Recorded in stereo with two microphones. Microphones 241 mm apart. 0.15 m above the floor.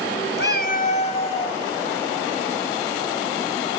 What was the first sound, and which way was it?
A cat meowing, 45° left (ahead or behind).